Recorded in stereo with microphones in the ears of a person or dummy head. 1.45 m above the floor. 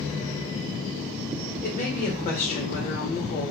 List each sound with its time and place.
1.6 s a woman speaking: 40° left (ahead or behind), 1.1 m